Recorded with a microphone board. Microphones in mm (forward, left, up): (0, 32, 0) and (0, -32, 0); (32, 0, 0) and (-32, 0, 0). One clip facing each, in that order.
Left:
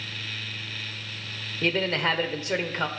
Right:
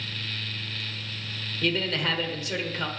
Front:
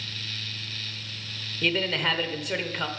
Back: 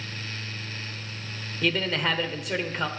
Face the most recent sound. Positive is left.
turn(degrees=90)